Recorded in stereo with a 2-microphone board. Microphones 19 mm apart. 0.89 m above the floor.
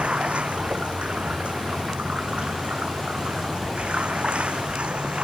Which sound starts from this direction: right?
Running water, at 0.0 s.